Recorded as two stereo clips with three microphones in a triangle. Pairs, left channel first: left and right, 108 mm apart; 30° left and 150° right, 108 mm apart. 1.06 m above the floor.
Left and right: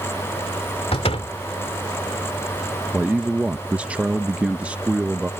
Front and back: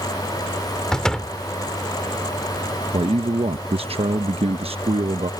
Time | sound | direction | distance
0.9 | a door slam | 115° left | ?
2.9 | a man speaking | 170° right | ?